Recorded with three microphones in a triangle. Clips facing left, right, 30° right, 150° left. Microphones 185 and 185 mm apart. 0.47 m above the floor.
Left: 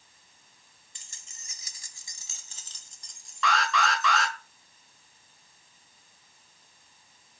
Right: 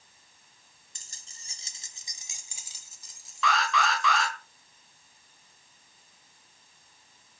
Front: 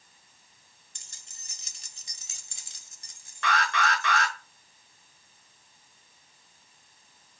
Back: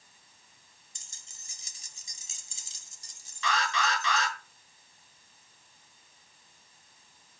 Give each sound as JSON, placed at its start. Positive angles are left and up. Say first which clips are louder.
{"t": 0.9, "sound": "keys jangling", "louder": "even, front 1 dB", "azimuth_deg": -45, "distance_m": 1.5}
{"t": 3.4, "sound": "an alarm", "louder": "even, front 2 dB", "azimuth_deg": 0, "distance_m": 6.0}